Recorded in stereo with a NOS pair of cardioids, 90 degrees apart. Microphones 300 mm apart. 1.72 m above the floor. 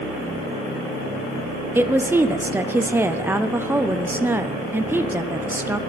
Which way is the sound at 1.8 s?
5° right.